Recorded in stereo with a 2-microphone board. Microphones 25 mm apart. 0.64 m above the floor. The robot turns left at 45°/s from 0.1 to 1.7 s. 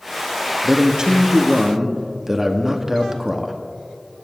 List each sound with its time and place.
0.6 s a man speaking: 100° right, 0.9 m; by 3.5 s 145° right, 0.9 m